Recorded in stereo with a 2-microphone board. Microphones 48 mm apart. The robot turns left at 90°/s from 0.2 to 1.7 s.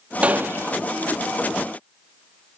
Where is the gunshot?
25° right, 0.9 m; by 0.7 s 75° right, 0.9 m.